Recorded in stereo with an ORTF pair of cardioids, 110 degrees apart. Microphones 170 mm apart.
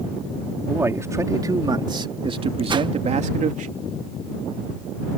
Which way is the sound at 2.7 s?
30° right.